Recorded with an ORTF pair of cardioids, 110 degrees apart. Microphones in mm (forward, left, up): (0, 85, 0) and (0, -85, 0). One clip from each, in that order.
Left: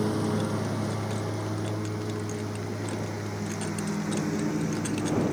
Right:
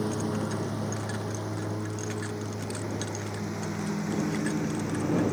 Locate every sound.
0.0 s a lawn mower: 15° left; by 5.3 s straight ahead